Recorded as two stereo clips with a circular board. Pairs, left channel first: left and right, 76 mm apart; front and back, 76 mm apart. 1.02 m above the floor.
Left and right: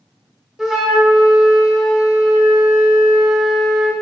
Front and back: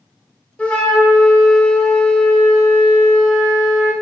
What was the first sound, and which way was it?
A flute, 10° right.